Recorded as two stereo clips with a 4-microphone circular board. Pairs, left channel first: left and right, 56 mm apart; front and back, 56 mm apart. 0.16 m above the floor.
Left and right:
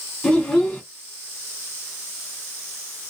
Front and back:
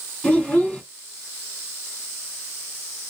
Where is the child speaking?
35° left, 1.0 m.